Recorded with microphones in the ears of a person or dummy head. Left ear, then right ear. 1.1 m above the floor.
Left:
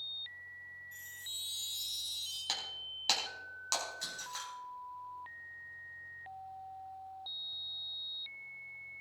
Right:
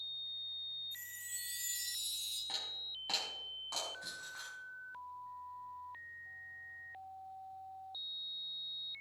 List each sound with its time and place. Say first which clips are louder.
0.9 s a chime: left 3 dB; 15° right (ahead or behind), 4.5 m
2.5 s breaking glass: left 2 dB; 75° left (ahead or behind), 4.5 m